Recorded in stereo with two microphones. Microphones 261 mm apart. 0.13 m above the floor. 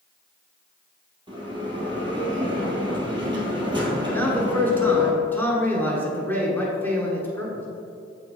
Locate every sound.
1.3 s a bell: 20° right (ahead or behind), 1.7 m
4.1 s a man speaking: 10° left (ahead or behind), 1.2 m